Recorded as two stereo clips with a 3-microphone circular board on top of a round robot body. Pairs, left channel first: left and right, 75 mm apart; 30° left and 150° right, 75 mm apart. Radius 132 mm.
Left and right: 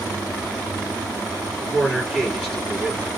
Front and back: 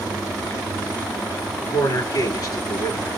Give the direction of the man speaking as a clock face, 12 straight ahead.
12 o'clock.